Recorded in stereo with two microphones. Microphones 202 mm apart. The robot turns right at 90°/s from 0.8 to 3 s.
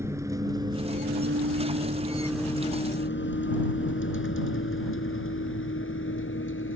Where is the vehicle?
15° right (ahead or behind); by 6.8 s 80° left.